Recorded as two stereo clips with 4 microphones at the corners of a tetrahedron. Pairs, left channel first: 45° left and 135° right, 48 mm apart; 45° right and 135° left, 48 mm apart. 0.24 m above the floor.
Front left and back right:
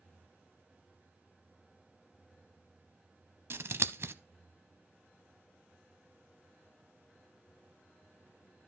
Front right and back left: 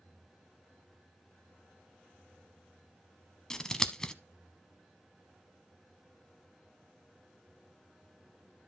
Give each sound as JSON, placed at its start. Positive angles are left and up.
{"t": 3.5, "sound": "scissors", "azimuth_deg": -120, "distance_m": 0.6}